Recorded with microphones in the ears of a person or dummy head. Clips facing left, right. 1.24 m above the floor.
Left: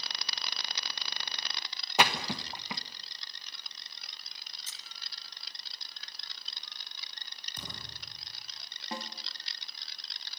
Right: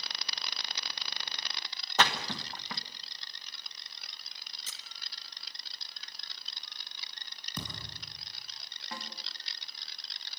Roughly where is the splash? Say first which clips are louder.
Left 1 dB; centre.